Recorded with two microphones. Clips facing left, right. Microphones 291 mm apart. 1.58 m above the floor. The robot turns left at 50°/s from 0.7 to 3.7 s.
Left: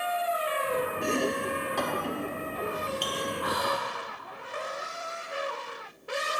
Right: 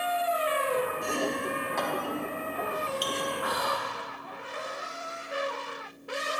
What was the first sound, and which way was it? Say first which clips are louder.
Chopping: left 2 dB; 75° left (ahead or behind).